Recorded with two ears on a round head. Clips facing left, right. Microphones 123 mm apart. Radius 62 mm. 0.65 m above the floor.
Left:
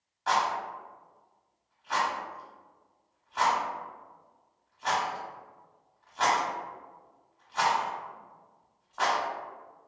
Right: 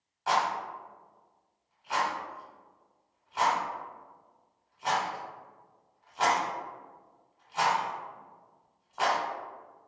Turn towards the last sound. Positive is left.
turn(degrees=-10)  # may be behind; listen again after turning